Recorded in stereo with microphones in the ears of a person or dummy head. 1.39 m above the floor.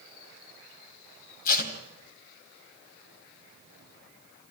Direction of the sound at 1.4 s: 55° left (ahead or behind).